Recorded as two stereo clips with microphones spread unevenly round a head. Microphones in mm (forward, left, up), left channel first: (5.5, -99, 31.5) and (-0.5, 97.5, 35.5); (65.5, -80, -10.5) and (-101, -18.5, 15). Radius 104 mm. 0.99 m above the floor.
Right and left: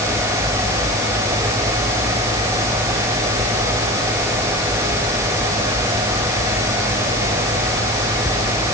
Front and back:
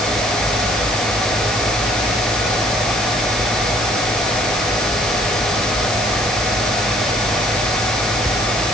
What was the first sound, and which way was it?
Only background noise.